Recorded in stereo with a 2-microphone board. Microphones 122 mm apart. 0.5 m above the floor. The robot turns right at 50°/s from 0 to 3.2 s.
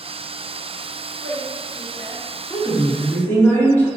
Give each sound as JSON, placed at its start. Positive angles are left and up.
{"t": 1.2, "sound": "a woman speaking", "side_deg": 10, "distance_m": 0.9}
{"t": 2.5, "sound": "a woman speaking", "side_deg": 20, "distance_m": 0.7}